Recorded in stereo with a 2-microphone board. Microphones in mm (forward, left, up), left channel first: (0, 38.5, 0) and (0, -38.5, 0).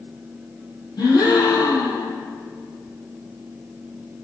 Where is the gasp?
70° left (ahead or behind), 3.5 m.